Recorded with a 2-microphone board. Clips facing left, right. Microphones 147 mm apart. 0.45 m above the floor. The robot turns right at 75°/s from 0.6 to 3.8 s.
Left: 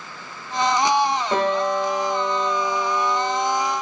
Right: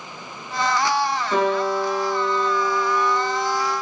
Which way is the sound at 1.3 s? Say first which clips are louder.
Right 3 dB; 140° left.